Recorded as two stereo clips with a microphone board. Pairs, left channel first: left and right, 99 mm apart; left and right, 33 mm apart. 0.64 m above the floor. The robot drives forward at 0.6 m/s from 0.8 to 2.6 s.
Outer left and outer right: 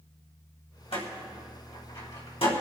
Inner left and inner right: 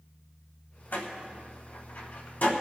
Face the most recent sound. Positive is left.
turn(degrees=75)  # may be behind; listen again after turning